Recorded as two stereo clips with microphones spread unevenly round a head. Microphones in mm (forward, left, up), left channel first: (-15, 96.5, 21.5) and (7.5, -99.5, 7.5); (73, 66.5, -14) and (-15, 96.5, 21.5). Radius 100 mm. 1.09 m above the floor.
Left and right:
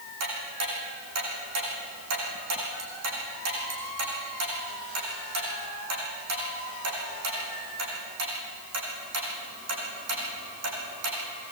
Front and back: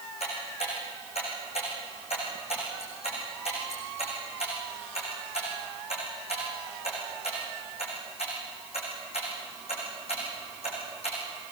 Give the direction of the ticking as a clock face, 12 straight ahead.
3 o'clock.